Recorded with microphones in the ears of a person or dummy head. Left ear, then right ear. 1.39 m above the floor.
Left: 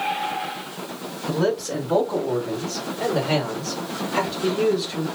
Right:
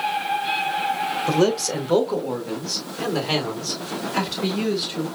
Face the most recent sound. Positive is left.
turn(degrees=-50)  # may be behind; listen again after turning